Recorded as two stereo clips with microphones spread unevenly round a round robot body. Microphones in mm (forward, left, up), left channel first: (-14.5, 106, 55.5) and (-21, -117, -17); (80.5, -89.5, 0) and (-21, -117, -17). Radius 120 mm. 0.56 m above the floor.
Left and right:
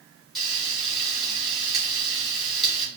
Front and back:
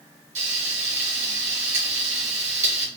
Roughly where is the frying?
Behind.